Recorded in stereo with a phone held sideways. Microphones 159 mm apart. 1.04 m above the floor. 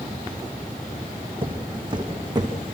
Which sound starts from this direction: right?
Footsteps, at 1.4 s.